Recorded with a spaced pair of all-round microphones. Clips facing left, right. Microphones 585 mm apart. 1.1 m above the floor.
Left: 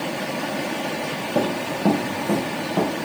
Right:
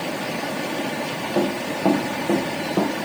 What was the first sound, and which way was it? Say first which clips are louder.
Running footsteps: right 1 dB; 50° left (ahead or behind).